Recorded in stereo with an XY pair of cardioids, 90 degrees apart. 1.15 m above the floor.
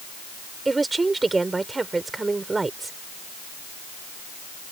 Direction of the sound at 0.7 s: 25° right.